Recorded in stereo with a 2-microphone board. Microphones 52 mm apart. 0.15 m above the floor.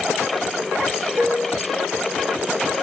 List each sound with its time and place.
1.2 s dishes clattering: 35° right (ahead or behind), 1.3 m